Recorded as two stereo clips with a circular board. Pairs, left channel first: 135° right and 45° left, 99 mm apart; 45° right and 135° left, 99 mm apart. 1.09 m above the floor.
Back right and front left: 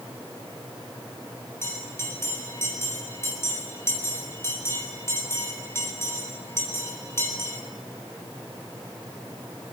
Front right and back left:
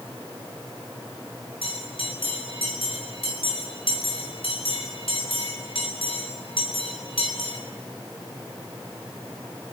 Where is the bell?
70° right, 7.5 m.